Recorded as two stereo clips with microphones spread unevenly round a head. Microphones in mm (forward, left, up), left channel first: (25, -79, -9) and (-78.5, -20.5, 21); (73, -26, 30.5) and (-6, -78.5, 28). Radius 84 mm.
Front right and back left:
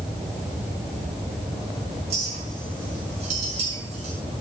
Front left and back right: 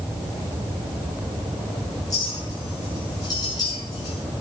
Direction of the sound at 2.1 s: 100° left.